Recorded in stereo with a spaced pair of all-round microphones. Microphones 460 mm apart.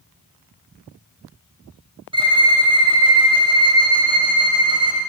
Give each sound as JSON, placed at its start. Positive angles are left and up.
{"t": 2.1, "sound": "a violin", "side_deg": -10, "distance_m": 1.1}